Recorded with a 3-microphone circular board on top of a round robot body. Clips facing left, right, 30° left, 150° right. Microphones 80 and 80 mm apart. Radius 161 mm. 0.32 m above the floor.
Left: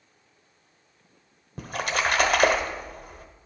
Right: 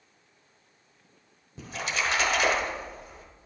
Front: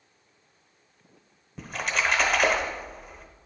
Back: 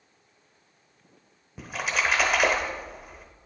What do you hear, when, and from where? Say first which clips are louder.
1.6 s a splash: left 4 dB, even; 125° left, 0.9 m